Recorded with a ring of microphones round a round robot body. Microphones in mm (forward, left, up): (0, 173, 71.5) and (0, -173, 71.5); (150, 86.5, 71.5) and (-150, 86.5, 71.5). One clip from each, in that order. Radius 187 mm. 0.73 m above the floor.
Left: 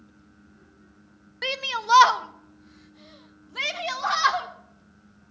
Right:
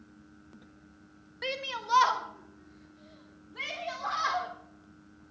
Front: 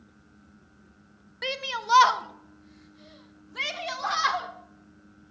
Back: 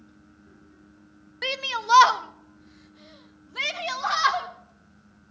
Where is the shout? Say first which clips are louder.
Left 8 dB, back 3 dB; 115° left, 1.1 m; by 4.5 s 110° left, 3 m.